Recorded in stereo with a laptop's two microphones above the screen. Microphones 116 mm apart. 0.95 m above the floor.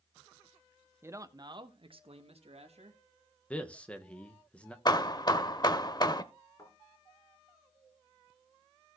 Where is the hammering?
35° left (ahead or behind), 0.7 m.